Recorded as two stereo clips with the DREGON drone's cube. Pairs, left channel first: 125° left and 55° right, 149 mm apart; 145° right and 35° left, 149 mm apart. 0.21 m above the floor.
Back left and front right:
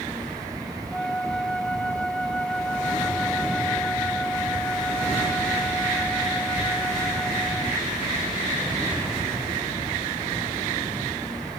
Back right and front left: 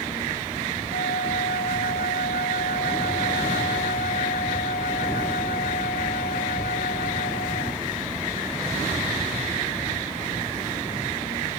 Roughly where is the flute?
Behind right.